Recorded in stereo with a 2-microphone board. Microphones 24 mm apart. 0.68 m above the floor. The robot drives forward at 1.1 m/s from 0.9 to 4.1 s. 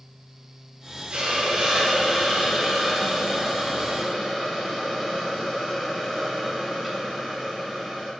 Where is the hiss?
55° right (ahead or behind), 1.7 m; by 8.1 s 20° right (ahead or behind), 4.5 m.